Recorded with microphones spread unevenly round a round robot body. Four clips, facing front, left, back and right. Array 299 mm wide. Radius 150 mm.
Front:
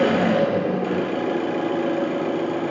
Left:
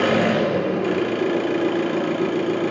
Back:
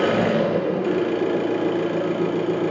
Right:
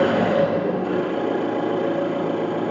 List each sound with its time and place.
0.0 s an engine running: 90° left, 5.5 m